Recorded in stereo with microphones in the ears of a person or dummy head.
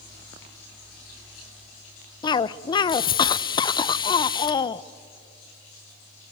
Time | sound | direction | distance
2.2 | a cough | 30° left (ahead or behind) | 0.6 m